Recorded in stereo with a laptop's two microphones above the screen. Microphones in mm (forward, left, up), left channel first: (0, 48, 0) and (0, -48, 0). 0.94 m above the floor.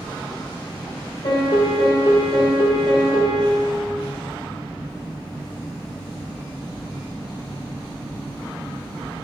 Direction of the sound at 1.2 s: 60° left (ahead or behind).